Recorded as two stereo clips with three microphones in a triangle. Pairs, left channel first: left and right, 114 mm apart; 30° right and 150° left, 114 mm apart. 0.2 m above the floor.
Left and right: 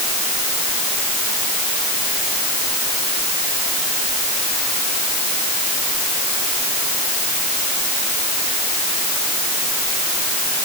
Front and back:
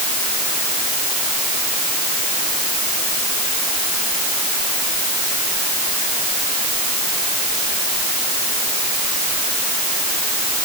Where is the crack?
I don't hear a crack.